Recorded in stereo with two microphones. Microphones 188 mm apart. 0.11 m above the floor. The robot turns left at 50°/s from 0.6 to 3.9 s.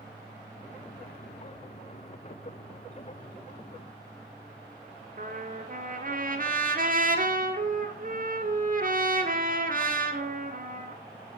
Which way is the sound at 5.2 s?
50° right (ahead or behind).